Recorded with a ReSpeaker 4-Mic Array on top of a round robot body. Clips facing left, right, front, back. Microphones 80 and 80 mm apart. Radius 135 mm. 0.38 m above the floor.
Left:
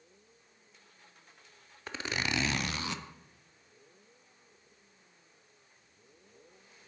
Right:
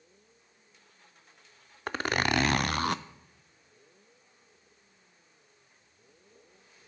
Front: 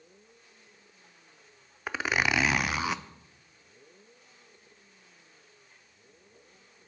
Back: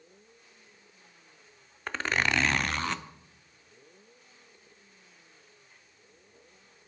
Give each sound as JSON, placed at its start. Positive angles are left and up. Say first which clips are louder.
{"t": 1.9, "sound": "a zipper", "louder": "right 7 dB, front 1 dB", "azimuth_deg": -80, "distance_m": 0.5}